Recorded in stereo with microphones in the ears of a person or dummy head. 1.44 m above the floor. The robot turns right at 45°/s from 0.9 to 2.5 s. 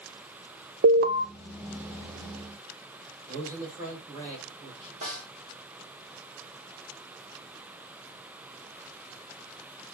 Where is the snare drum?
35° right (ahead or behind), 1.9 m.